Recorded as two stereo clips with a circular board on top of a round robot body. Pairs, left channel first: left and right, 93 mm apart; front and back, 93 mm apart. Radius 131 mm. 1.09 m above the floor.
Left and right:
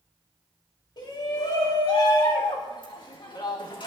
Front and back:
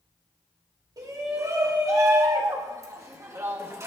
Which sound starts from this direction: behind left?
A shout, at 1.0 s.